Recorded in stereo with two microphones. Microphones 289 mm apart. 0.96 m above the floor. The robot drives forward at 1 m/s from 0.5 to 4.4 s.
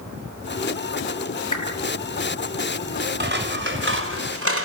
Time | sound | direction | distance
1.5 | a whoosh | 70° left (ahead or behind) | 8.5 m
3.2 | scissors | 35° right (ahead or behind) | 4.5 m